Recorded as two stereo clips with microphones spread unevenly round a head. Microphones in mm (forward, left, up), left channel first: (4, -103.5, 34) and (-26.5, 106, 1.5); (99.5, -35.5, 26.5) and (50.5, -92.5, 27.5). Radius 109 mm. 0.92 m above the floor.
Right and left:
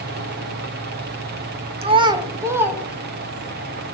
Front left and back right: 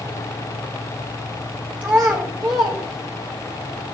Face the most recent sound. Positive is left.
turn(degrees=-175)